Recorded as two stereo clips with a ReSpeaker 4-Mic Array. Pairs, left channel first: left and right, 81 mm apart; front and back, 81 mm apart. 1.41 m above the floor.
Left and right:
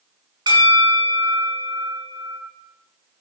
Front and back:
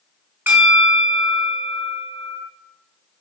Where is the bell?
115° right, 4.5 m.